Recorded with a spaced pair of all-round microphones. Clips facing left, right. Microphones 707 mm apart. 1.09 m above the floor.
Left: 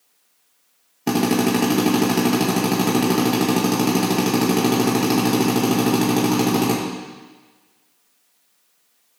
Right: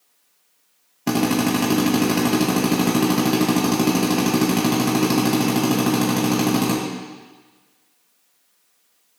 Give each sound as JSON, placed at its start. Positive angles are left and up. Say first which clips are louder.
{"t": 1.1, "sound": "a drill", "louder": "left 1 dB", "side_deg": -5, "distance_m": 1.5}